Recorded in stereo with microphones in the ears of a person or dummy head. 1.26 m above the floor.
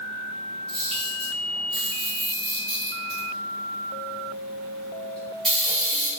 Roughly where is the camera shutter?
Centre.